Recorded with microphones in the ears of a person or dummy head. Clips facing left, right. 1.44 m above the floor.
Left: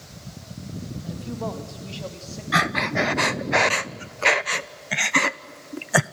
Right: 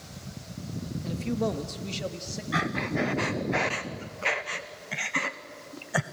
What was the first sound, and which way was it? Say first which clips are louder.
A man speaking: right 4 dB; 35° right (ahead or behind).